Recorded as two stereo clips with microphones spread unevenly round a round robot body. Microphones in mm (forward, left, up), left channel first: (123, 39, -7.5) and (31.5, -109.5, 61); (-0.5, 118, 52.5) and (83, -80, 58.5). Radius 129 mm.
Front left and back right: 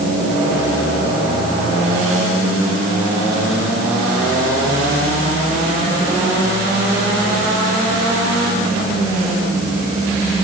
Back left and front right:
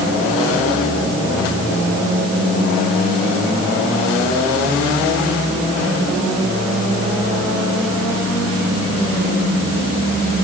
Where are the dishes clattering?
I don't hear dishes clattering.